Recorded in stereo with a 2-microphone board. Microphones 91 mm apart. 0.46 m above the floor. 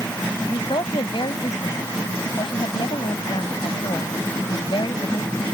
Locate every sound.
0.5 s a woman speaking: 70° left (ahead or behind)